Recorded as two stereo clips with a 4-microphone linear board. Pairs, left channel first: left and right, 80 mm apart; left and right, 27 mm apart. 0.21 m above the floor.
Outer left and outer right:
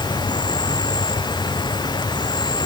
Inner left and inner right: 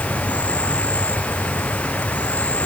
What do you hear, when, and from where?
0.0 s an insect: 65° left (ahead or behind)